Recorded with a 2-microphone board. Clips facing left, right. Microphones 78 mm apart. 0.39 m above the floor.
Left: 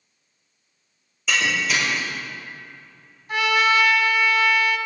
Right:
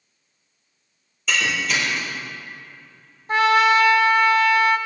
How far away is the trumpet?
About 0.8 m.